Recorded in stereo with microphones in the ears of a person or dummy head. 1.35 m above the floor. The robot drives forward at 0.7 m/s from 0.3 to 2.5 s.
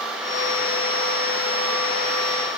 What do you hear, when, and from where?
Only background noise.